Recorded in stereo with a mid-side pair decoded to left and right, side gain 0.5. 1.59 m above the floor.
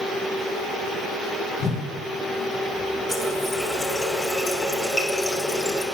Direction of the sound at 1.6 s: 60° left.